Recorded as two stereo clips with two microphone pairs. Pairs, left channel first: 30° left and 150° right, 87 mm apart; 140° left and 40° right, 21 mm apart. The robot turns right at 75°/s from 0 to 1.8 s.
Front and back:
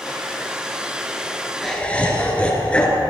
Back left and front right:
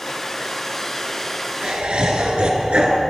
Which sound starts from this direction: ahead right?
Laughter, at 1.6 s.